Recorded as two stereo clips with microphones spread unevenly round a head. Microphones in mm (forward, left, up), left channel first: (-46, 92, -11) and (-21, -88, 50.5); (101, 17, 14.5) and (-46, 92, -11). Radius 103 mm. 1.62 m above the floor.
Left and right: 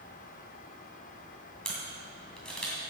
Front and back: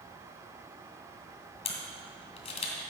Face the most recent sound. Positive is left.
turn(degrees=-5)